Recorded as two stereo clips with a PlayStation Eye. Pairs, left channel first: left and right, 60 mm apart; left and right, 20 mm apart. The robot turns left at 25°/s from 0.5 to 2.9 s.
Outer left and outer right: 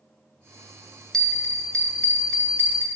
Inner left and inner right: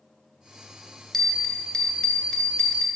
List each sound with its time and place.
1.1 s a bell: 170° left, 0.7 m; by 2.9 s 125° left, 0.7 m